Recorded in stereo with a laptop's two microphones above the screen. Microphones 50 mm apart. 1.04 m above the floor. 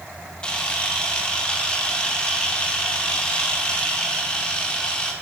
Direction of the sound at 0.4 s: 20° left (ahead or behind).